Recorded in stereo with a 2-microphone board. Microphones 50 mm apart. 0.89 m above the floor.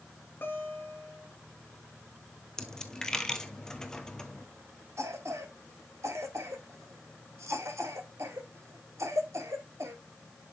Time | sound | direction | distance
0.4 | a guitar | 40° left (ahead or behind) | 2.5 m
2.6 | a dropped coin | 15° left (ahead or behind) | 1.1 m
5.0 | a cough | 75° right (ahead or behind) | 2 m